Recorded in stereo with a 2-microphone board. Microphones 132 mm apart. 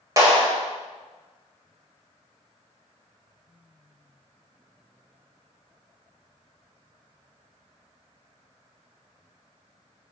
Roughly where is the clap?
Right.